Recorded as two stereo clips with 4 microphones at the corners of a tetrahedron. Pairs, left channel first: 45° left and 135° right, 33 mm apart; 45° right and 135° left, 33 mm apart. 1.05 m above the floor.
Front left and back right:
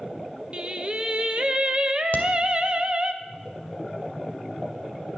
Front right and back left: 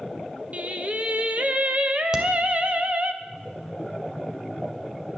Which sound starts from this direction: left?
A crack, at 2.1 s.